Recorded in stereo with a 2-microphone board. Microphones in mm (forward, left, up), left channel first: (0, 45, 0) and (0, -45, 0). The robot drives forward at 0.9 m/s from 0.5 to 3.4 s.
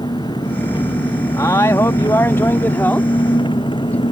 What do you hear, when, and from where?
0.0 s an engine running: 55° left (ahead or behind); by 4.1 s 60° left (ahead or behind)
1.4 s a man speaking: 40° left (ahead or behind); by 4.0 s 20° left (ahead or behind)